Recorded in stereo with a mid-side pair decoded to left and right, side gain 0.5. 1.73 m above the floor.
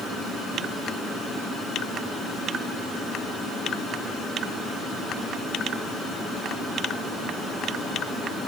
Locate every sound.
Only background noise.